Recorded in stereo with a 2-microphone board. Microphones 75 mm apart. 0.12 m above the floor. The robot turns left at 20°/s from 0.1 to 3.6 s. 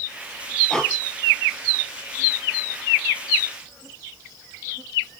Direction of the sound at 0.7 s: 10° left (ahead or behind).